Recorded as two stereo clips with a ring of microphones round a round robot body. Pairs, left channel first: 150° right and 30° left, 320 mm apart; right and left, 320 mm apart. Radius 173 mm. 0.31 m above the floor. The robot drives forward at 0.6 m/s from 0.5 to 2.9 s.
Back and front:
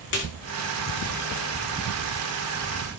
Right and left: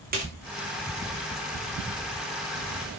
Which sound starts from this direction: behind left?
A snare drum, at 0.1 s.